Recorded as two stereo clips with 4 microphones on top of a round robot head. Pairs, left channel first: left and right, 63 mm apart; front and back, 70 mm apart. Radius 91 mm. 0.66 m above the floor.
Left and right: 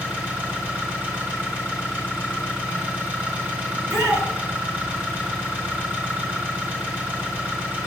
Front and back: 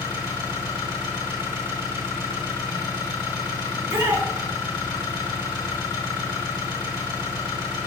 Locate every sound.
0.0 s an engine running: 20° right, 3 m
3.7 s a shout: 125° right, 2 m